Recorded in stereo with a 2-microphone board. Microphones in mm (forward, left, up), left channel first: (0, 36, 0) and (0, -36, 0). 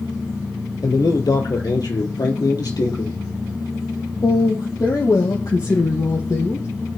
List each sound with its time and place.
0.8 s a man speaking: 60° left (ahead or behind), 3 m; by 6.7 s 50° left (ahead or behind), 4.5 m